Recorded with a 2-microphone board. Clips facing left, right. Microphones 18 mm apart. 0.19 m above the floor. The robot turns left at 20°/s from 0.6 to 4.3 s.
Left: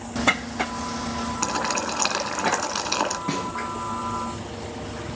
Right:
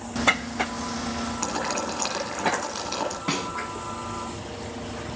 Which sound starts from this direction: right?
A snare drum, at 3.3 s.